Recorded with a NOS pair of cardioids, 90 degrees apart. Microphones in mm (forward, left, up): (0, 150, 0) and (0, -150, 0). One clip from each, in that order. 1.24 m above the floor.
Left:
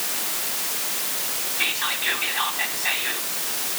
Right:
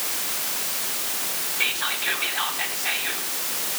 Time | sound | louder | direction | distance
1.6 | whispering | left 1 dB | 5° left | 4 m